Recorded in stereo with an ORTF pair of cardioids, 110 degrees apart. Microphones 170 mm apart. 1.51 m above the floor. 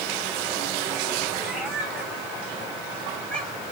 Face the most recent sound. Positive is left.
turn(degrees=5)